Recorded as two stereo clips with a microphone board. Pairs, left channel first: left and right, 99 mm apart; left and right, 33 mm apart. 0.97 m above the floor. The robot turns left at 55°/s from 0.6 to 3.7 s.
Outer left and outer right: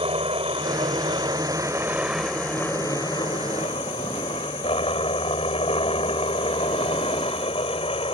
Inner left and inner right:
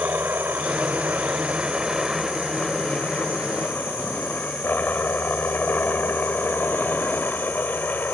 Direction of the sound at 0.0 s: 90° right.